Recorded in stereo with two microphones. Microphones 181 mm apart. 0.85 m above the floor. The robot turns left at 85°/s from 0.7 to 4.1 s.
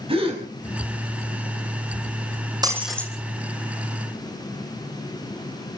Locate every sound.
0.1 s a gasp: 35° right (ahead or behind), 5.5 m
2.6 s breaking glass: 155° right, 3.5 m; by 3.1 s 165° left, 3.5 m